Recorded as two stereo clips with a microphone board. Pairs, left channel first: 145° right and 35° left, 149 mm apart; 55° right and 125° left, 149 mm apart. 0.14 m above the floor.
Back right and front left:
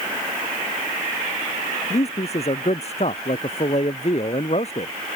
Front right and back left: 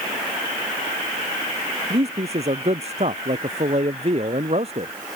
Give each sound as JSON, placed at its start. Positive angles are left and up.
{"t": 1.9, "sound": "a man speaking", "azimuth_deg": 170}